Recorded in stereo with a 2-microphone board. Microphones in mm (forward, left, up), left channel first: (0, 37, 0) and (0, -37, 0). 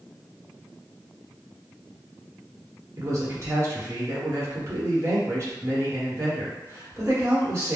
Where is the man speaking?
40° right (ahead or behind), 1.1 m.